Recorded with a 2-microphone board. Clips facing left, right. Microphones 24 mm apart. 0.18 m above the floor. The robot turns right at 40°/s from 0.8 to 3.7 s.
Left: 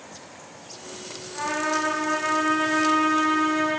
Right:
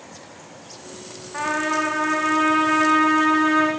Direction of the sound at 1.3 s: 140° right.